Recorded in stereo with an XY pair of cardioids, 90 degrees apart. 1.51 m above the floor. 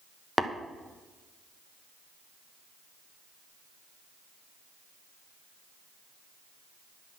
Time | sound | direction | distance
0.4 | tapping | 5° left | 1.2 m